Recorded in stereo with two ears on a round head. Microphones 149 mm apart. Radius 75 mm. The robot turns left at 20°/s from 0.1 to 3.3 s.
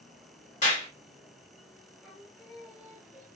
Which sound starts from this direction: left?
A clap, at 0.6 s.